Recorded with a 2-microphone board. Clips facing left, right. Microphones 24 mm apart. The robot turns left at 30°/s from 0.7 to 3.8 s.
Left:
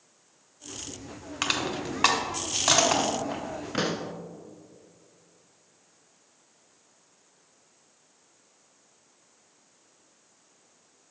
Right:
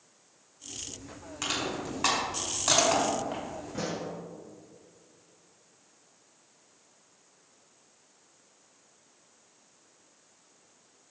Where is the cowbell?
I don't hear a cowbell.